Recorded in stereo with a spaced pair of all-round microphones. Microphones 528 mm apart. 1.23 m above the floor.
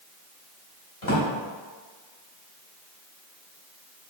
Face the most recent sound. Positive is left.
turn(degrees=65)  # may be behind; listen again after turning